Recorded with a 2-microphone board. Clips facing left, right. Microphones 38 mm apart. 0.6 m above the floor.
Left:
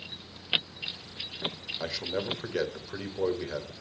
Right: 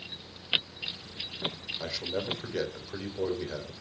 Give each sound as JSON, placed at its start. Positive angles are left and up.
{"t": 1.8, "sound": "a man speaking", "side_deg": 20, "distance_m": 2.5}